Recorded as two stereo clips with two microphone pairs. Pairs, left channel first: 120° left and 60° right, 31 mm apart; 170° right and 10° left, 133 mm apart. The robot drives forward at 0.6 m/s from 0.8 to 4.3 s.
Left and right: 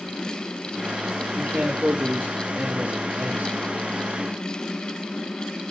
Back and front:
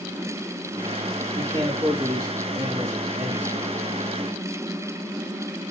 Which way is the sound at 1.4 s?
45° right.